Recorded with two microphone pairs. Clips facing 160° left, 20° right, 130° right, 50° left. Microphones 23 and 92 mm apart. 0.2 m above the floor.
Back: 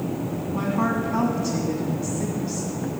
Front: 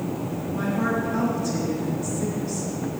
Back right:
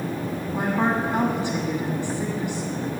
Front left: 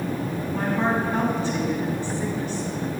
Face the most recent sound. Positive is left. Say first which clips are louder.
# back 1 dB, back right 1 dB
turn(degrees=170)